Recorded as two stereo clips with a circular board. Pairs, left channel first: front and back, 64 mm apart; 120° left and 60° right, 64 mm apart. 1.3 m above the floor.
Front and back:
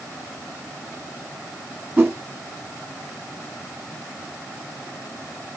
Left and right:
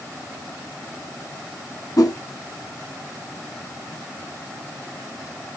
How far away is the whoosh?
About 2 m.